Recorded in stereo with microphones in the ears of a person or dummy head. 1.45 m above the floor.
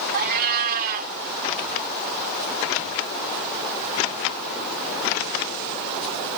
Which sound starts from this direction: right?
A cat meowing, at 0.1 s.